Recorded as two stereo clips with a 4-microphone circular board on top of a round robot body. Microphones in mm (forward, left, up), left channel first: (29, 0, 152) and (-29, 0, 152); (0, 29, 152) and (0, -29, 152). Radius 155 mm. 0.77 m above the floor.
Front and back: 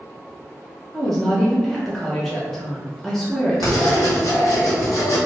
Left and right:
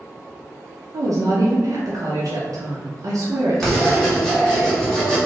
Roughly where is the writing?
Ahead.